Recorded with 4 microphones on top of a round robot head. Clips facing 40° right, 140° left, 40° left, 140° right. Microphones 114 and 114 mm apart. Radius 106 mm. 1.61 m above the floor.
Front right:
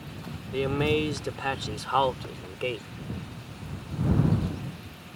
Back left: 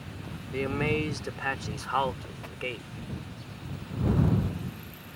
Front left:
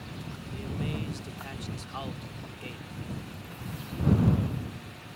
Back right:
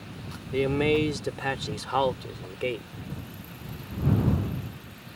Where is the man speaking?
120° right; by 2.9 s 110° right.